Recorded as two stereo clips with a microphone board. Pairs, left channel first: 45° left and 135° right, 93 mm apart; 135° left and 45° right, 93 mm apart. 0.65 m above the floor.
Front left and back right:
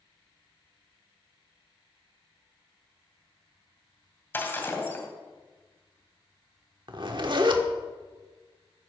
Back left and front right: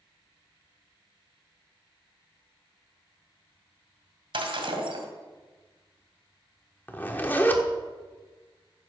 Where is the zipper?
160° right, 1.3 m.